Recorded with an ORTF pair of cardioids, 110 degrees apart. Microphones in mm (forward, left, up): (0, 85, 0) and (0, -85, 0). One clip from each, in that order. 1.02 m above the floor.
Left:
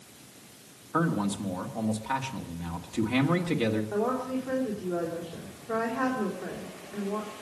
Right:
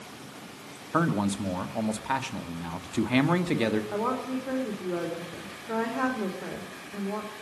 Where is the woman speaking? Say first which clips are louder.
Even; 15° right, 3 m.